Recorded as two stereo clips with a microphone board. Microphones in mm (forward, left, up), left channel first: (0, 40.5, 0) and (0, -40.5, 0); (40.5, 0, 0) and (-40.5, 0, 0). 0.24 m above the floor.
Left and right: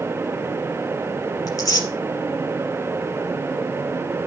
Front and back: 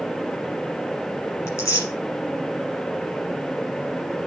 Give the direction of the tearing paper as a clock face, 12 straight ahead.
10 o'clock.